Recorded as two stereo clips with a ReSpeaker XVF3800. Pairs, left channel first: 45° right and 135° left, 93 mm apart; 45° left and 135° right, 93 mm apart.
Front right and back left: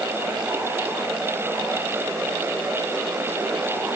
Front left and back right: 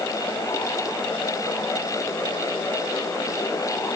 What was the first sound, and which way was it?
Only background noise.